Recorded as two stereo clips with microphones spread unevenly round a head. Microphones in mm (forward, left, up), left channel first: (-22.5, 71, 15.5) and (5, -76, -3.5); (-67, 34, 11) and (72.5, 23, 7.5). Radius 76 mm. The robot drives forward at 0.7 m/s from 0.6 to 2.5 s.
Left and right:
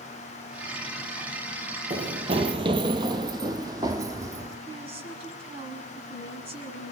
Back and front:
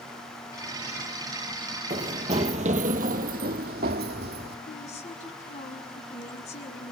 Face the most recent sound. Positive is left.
turn(degrees=-135)